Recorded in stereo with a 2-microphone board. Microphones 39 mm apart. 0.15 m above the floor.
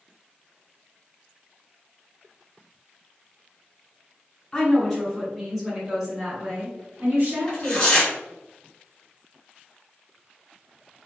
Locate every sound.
4.5 s a woman speaking: 25° left (ahead or behind), 1.5 m; by 7.9 s 45° right (ahead or behind), 1.9 m
7.5 s tearing paper: 25° left (ahead or behind), 1.8 m